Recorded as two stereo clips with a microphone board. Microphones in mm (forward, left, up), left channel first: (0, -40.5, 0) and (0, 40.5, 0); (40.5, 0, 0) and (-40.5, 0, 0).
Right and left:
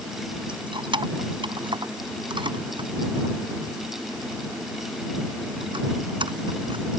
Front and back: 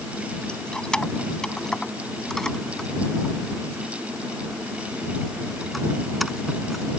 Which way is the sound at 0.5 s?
80° left.